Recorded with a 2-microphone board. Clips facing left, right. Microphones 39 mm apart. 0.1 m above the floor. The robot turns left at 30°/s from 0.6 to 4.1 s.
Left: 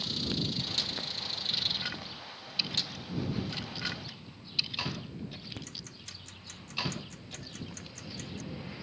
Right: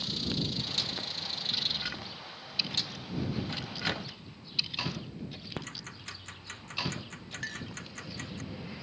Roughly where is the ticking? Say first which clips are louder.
Right 4 dB; right.